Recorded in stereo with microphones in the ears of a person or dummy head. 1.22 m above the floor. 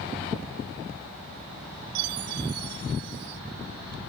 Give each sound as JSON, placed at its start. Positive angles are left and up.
{"t": 1.9, "sound": "a chime", "side_deg": -60, "distance_m": 1.6}